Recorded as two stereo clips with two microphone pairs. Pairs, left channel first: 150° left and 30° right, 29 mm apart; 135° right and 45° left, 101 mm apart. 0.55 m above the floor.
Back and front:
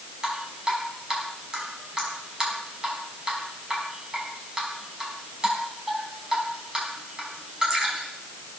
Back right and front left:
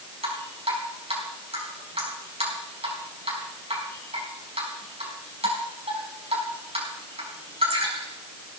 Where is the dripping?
35° left, 4.5 m.